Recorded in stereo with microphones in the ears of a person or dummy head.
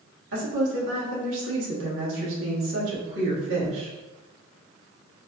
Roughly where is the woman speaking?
Right.